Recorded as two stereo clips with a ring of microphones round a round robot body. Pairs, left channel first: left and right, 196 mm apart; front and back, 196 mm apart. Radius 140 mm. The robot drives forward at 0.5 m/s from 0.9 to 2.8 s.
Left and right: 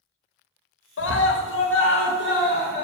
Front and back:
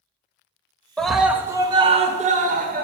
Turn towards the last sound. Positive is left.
turn(degrees=135)